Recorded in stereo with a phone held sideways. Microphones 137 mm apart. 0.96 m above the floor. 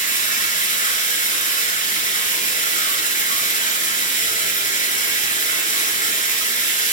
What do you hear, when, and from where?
0.0 s running water: 75° left (ahead or behind), 3.5 m